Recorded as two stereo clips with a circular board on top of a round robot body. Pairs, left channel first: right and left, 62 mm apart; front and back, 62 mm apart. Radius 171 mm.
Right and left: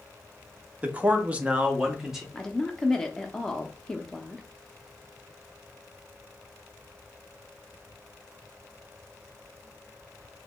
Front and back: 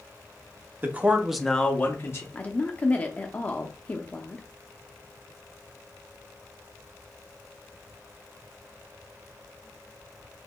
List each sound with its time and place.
0.8 s a man speaking: 145° left, 1.1 m; by 2.2 s 5° left, 1.2 m
2.3 s a woman speaking: 20° right, 0.8 m